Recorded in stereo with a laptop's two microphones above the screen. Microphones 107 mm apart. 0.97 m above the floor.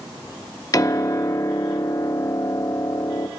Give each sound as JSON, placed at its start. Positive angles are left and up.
{"t": 0.7, "sound": "a piano", "side_deg": 35, "distance_m": 0.5}